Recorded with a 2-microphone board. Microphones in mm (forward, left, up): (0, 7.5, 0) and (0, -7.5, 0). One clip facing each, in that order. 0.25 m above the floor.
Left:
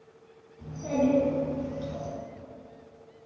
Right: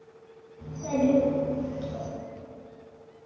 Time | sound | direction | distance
0.6 | a child speaking | 10° right (ahead or behind) | 1.6 m